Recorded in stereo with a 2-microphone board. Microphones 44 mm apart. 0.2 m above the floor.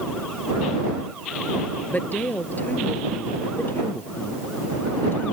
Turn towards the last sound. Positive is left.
turn(degrees=55)  # may be behind; listen again after turning